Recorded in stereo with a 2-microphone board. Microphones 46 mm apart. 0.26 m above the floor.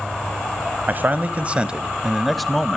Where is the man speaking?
40° right (ahead or behind), 1.2 m; by 2.8 s 10° left (ahead or behind), 1.2 m.